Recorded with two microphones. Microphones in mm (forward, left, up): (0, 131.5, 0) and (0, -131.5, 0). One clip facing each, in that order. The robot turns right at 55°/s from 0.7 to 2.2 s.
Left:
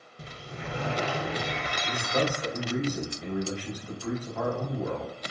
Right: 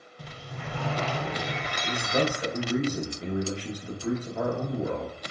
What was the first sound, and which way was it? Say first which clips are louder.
A sliding door: left 1 dB; 135° left.